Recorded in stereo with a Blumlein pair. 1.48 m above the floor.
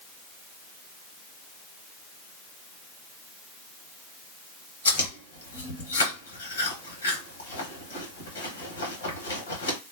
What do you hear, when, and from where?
4.8 s chewing: 65° left, 1.4 m